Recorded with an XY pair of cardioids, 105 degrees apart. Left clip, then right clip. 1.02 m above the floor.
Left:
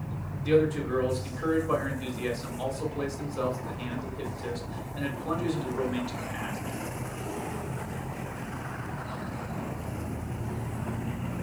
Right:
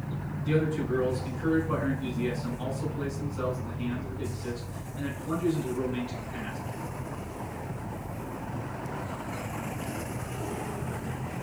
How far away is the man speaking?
About 2.5 m.